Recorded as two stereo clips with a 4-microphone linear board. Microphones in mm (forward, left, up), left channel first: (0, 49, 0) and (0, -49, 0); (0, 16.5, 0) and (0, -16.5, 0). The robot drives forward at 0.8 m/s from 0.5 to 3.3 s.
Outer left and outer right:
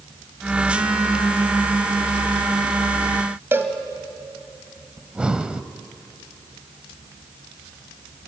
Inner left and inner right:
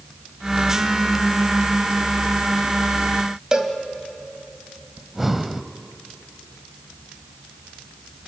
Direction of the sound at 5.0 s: 10° right (ahead or behind).